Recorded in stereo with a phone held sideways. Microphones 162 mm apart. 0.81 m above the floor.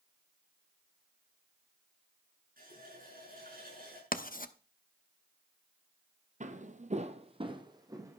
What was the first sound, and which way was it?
A running tap, 60° right (ahead or behind).